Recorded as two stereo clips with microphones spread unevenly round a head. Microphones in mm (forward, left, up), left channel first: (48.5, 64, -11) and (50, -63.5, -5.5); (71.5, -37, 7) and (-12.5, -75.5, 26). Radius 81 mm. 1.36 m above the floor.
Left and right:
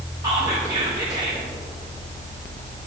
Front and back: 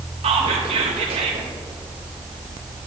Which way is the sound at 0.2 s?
160° right.